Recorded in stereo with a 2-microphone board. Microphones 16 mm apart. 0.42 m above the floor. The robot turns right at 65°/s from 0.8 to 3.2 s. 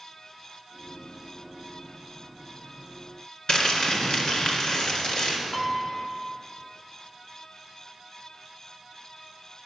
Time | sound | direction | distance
3.5 | crumpling | 65° left (ahead or behind) | 2 m
5.5 | a piano | 30° left (ahead or behind) | 1.0 m